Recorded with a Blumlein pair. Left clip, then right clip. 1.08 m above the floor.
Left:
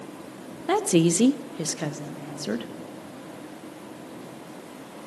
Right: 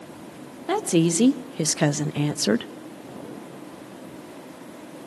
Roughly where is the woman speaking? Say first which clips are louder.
Even; ahead.